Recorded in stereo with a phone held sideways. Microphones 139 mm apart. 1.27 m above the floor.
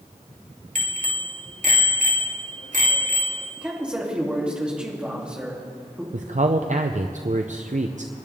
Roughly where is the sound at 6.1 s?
Right.